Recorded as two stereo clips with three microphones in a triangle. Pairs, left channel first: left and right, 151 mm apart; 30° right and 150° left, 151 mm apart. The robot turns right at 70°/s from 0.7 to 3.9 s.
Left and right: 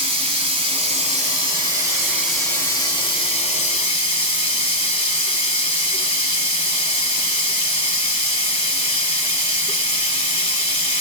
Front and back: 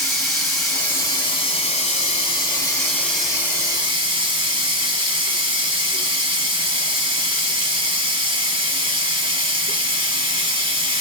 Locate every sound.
0.0 s running water: 115° right, 1.1 m; by 11.0 s 110° left, 1.1 m